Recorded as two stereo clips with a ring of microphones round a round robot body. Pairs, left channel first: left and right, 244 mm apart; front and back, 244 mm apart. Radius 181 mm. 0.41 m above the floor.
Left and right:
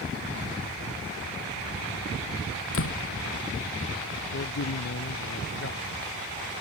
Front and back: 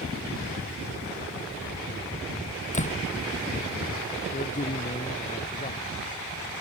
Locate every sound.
2.7 s a door slam: 60° left
4.3 s a man speaking: 60° left